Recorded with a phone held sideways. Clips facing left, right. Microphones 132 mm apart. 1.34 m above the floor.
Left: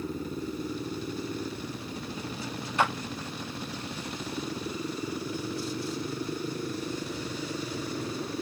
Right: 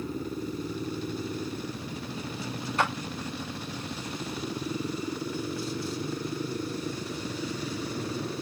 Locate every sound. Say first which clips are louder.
2.8 s a clap: left 1 dB; 35° right (ahead or behind), 4 m